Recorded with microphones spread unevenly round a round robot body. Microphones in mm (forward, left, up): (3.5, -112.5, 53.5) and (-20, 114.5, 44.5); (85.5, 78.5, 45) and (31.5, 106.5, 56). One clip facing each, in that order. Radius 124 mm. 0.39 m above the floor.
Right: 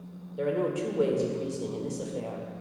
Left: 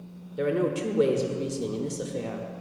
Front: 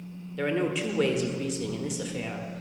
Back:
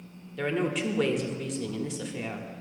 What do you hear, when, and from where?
0.4 s a woman speaking: 50° left, 1.3 m